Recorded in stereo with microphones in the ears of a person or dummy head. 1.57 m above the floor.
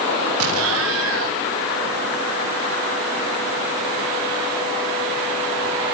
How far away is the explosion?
About 1.4 m.